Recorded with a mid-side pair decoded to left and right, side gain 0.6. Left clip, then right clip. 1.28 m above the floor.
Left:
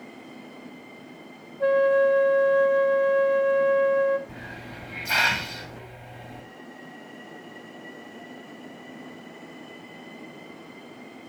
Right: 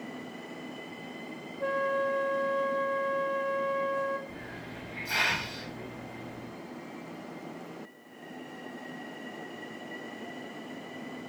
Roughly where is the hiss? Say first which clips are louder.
Left 3 dB; ahead left.